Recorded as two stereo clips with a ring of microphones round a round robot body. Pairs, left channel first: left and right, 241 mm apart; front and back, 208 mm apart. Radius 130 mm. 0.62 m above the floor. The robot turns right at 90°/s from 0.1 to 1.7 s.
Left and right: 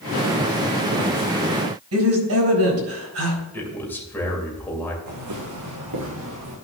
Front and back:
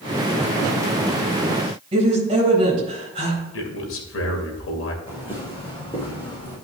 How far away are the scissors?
No scissors in this recording.